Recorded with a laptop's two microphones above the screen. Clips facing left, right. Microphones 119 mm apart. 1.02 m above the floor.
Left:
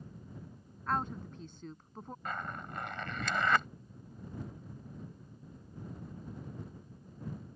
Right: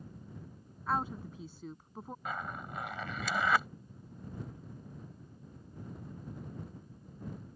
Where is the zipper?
5° right (ahead or behind).